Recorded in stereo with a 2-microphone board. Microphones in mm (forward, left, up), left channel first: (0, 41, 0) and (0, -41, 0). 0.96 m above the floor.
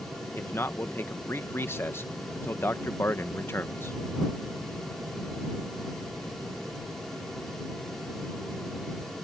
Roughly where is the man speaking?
Left.